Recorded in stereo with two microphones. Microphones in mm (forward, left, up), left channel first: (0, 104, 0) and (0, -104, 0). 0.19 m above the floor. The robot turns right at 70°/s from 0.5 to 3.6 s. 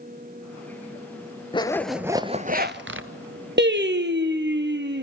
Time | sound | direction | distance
1.5 | a zipper | 155° left | 0.8 m
3.6 | singing | 60° right (ahead or behind) | 1.4 m